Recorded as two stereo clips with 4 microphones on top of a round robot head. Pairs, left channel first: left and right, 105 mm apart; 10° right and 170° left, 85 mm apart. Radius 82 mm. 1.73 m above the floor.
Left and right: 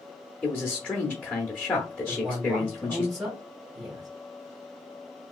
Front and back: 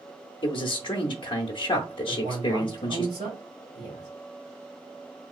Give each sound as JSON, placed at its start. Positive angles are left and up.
{"t": 0.4, "sound": "a man speaking", "azimuth_deg": 15, "distance_m": 0.6}
{"t": 2.1, "sound": "a man speaking", "azimuth_deg": -170, "distance_m": 1.7}